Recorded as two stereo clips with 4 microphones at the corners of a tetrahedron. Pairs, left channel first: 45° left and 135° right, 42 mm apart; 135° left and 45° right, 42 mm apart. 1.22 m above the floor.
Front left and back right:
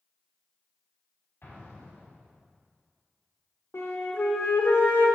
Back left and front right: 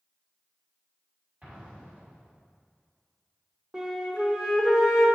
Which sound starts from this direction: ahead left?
A flute, at 3.7 s.